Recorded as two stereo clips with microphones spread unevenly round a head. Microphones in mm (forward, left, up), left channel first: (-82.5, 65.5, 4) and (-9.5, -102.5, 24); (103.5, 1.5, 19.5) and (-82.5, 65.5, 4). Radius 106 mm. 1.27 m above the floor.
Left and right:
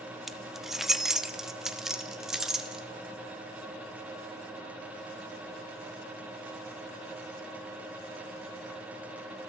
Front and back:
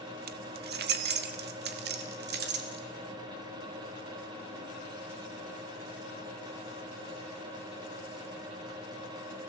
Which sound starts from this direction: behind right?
Keys jangling, at 0.3 s.